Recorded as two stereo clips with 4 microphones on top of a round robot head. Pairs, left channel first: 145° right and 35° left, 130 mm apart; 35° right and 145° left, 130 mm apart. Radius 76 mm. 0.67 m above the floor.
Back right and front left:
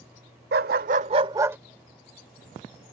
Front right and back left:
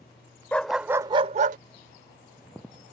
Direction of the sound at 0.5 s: 45° left.